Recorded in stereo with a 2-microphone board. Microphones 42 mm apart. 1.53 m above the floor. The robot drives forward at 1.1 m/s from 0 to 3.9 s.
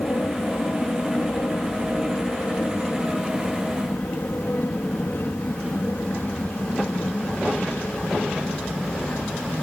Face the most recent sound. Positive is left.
turn(degrees=50)  # may be behind; listen again after turning